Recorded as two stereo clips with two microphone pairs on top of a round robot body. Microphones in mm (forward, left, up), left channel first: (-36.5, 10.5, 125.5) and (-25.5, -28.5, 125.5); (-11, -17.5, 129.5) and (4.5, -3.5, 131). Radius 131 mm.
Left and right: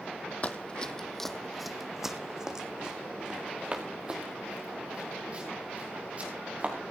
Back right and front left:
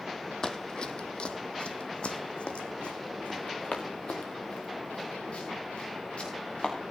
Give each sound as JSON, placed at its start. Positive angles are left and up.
{"t": 0.4, "sound": "running footsteps", "azimuth_deg": 160, "distance_m": 1.1}